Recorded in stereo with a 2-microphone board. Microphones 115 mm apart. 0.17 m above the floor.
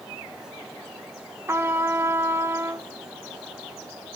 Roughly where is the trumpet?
Right.